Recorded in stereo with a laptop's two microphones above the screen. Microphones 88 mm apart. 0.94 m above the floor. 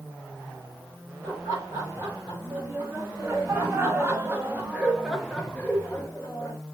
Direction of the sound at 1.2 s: 40° right (ahead or behind).